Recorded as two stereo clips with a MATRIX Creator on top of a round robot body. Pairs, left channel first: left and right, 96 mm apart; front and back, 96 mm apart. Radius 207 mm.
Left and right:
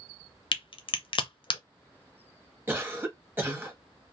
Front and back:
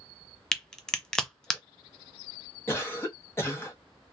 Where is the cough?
40° right, 1.4 m.